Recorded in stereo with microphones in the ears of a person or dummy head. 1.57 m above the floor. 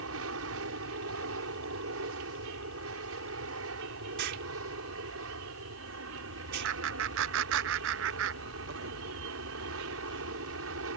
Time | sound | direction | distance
0.0 | an aircraft | 75° right (ahead or behind) | ?
4.2 | an explosion | 60° right (ahead or behind) | ?
6.6 | laughter | 65° right (ahead or behind) | ?